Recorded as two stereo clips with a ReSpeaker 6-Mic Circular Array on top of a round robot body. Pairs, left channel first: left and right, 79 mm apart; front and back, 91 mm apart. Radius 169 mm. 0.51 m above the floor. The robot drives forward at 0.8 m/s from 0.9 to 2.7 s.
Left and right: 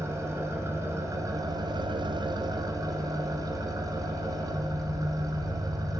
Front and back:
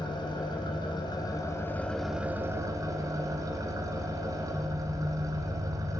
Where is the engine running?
35° right, 1.2 m; by 6.0 s 125° right, 0.9 m.